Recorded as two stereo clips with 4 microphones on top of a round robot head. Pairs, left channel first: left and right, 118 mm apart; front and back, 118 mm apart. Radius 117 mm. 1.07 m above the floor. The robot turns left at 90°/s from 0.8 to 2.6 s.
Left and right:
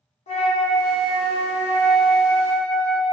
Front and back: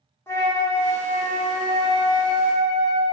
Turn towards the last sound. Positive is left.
turn(degrees=-90)